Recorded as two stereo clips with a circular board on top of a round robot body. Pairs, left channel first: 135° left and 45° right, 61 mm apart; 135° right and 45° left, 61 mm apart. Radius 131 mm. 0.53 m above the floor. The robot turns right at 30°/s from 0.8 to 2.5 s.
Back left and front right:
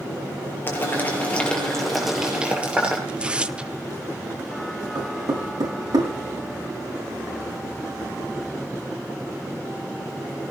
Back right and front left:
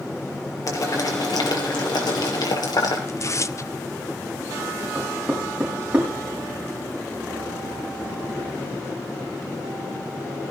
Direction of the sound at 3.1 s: 115° right.